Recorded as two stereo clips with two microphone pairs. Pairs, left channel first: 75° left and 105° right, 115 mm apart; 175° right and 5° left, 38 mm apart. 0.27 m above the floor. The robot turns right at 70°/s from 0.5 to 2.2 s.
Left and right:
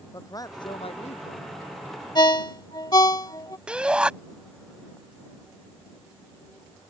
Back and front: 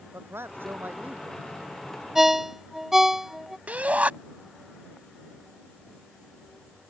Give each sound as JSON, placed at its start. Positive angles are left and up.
{"t": 0.1, "sound": "a man speaking", "azimuth_deg": 15}
{"t": 2.1, "sound": "a ringtone", "azimuth_deg": 80}
{"t": 3.7, "sound": "a shout", "azimuth_deg": -30}